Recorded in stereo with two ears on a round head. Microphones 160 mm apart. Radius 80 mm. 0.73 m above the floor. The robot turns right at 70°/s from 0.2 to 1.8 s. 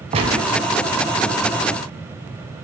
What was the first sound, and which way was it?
A gunshot, 30° right (ahead or behind).